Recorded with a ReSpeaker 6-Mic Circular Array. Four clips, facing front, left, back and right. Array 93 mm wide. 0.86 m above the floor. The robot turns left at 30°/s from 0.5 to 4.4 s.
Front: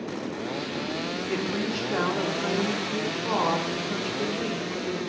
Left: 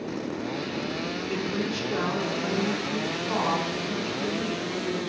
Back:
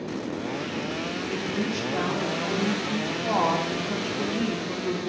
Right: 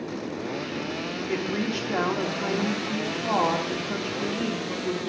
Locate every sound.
1.3 s a woman speaking: 70° right, 2 m; by 5.1 s 160° right, 2 m